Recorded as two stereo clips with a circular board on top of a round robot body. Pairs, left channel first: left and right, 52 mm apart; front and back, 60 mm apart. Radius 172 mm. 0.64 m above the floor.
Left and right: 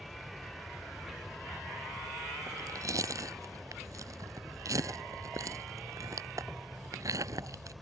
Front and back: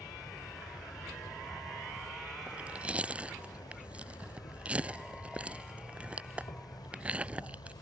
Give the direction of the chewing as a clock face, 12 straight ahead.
4 o'clock.